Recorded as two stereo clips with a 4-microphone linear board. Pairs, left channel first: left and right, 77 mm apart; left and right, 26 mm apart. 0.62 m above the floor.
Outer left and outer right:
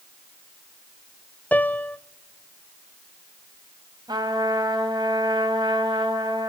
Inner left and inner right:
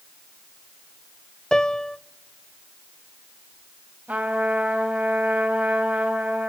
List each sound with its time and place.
1.5 s a piano: 20° left (ahead or behind), 0.7 m
4.1 s a trumpet: 75° right (ahead or behind), 3.5 m